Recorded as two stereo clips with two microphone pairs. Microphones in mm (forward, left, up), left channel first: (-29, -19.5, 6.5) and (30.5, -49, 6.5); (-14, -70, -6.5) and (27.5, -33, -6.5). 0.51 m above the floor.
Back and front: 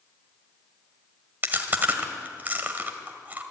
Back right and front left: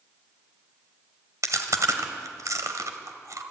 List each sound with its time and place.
1.4 s chewing: 35° left, 1.8 m